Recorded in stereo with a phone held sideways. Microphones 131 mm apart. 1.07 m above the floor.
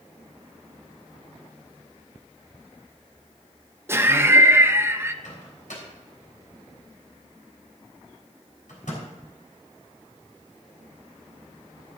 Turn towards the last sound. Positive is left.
turn(degrees=85)